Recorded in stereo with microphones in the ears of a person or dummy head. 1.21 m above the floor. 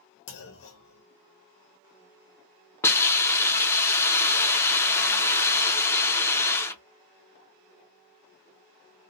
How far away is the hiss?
About 0.5 m.